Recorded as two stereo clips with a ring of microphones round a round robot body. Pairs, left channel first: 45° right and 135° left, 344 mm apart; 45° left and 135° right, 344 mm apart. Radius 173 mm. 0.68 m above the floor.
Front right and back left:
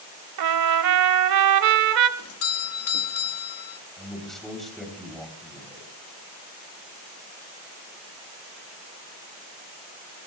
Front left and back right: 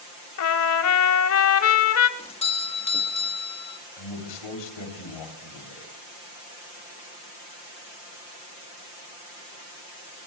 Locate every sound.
0.4 s a trumpet: 95° left, 0.9 m
2.2 s a doorbell: 20° right, 1.2 m
4.0 s a man speaking: 45° left, 3.5 m